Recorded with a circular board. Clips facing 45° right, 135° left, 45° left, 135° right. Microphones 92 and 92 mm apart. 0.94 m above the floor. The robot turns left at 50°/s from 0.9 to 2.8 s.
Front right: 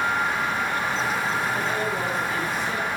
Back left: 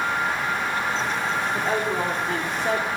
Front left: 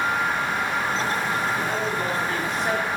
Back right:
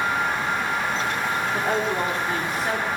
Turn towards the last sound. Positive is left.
turn(degrees=130)